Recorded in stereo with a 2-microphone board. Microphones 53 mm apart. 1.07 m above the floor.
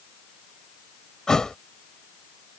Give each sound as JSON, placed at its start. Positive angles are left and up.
{"t": 1.3, "sound": "a thud", "side_deg": 10}